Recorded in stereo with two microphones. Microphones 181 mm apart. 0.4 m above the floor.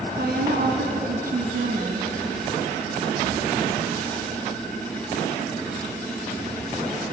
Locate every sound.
0.2 s a woman speaking: 65° right (ahead or behind), 3.5 m; by 2.1 s 50° right (ahead or behind), 3 m